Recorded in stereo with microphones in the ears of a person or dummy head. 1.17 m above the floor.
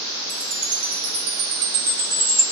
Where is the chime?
55° right (ahead or behind), 2.0 m.